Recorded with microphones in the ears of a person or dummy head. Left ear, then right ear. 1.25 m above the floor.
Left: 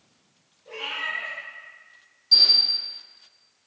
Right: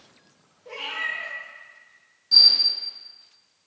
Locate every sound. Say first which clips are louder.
0.7 s a cat meowing: right 1 dB; 65° right (ahead or behind), 0.9 m
2.3 s a camera shutter: right 2 dB; 5° left (ahead or behind), 0.9 m